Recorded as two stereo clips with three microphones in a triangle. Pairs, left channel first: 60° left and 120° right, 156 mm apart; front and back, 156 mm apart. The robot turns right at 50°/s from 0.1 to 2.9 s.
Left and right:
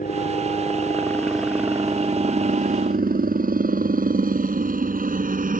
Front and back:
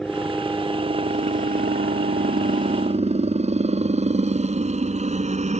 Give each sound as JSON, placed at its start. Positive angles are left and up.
{"t": 0.0, "sound": "a helicopter", "azimuth_deg": 90}